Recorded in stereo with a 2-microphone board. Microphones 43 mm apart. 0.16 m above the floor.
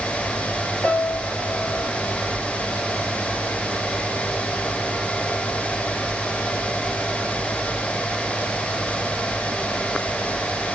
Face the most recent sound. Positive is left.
turn(degrees=40)  # may be behind; listen again after turning